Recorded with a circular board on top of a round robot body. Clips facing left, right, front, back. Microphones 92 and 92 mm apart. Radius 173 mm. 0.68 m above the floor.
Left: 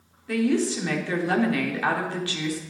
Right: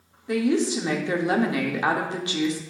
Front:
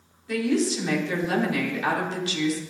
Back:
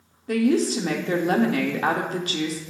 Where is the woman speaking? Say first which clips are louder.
Right 1 dB, back 3 dB; 155° right, 1.7 m.